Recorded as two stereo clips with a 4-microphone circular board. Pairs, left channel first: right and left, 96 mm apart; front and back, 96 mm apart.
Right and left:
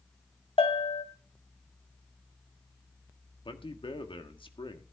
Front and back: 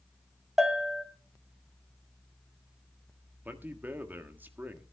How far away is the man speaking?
About 1.5 m.